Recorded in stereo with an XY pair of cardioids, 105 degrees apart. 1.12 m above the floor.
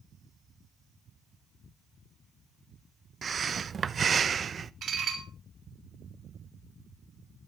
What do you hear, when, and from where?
3.2 s breathing: 40° right, 0.5 m
4.8 s dishes clattering: 50° right, 3 m